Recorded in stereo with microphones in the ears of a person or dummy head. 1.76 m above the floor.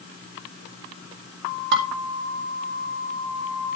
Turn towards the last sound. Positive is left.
turn(degrees=-55)  # may be behind; listen again after turning